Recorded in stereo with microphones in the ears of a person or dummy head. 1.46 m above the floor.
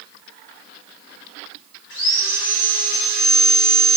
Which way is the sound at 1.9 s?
75° left (ahead or behind).